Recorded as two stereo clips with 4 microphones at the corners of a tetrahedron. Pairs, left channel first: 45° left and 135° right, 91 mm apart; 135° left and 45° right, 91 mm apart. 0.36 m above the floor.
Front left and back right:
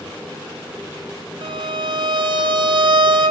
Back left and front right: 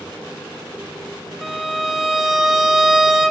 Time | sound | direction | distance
1.4 | a violin | 135° right | 1.9 m